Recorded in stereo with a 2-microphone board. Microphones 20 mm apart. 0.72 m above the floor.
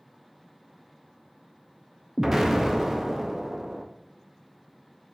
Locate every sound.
2.2 s an explosion: 20° right (ahead or behind), 0.5 m